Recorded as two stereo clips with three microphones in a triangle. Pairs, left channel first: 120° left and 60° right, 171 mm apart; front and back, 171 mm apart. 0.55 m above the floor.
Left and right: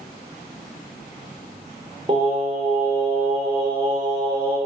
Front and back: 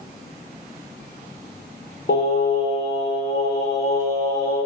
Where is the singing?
5° right, 0.7 m.